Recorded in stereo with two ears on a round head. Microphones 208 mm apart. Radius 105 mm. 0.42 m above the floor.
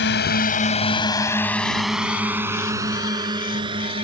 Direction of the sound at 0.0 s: 50° left (ahead or behind).